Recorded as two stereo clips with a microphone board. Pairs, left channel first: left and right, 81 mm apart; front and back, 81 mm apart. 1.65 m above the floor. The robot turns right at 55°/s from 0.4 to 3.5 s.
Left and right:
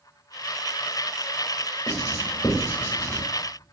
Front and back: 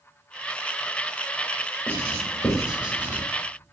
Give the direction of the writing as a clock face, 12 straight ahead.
10 o'clock.